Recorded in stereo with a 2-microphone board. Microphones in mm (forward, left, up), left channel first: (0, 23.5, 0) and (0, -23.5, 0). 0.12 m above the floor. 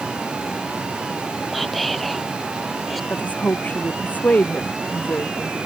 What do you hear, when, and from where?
1.5 s whispering: centre (ahead or behind)
3.1 s a woman speaking: 35° left (ahead or behind)